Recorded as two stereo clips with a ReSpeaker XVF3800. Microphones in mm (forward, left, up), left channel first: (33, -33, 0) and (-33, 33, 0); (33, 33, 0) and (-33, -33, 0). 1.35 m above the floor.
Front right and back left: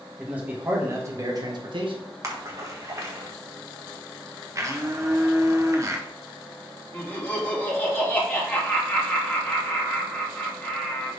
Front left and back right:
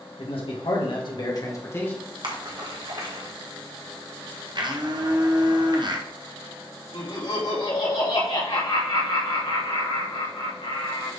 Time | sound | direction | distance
0.2 | a man speaking | 60° left | 2 m
2.2 | a splash | 170° right | 1.5 m
4.5 | a blender | 170° right | 1.0 m
6.9 | laughter | 25° left | 2.5 m